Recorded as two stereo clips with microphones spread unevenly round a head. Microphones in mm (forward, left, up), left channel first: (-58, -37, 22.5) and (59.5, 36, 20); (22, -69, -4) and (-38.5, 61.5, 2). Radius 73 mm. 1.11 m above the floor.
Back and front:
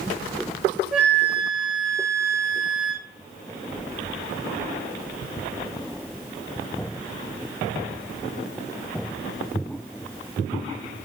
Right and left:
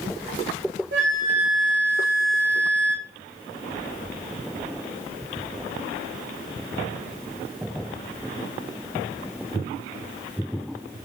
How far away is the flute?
About 2.5 m.